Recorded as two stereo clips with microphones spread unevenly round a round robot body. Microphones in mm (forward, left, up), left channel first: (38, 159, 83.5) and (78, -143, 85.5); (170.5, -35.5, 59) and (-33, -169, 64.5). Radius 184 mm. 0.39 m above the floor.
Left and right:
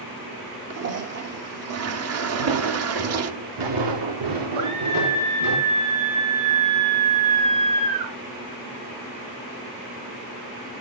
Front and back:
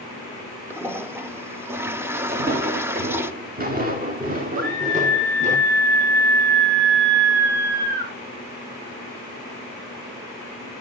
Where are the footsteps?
95° right, 2 m; by 5.6 s 90° right, 4 m.